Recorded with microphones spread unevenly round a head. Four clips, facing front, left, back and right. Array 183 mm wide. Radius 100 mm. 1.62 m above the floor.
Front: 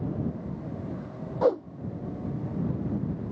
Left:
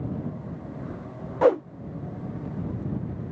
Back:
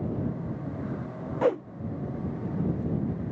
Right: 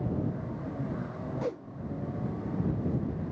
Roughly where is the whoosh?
Ahead left.